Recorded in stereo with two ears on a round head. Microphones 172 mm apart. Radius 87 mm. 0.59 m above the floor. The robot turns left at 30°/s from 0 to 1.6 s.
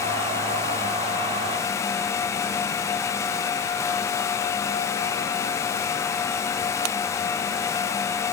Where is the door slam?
No door slam in this recording.